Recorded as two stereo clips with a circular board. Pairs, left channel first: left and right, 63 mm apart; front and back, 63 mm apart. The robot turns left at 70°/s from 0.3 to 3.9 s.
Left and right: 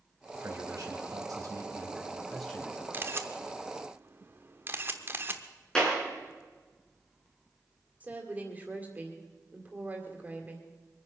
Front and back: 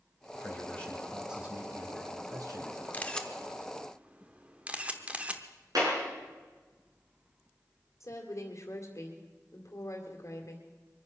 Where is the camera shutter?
55° right, 1.0 m; by 5.4 s 120° right, 1.0 m.